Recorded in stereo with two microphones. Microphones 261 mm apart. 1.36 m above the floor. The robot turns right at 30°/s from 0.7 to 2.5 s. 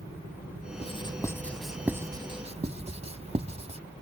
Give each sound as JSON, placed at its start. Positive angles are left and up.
{"t": 0.8, "sound": "writing", "side_deg": 25}